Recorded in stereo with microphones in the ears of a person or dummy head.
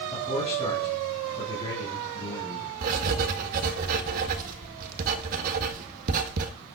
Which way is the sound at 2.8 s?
50° right (ahead or behind).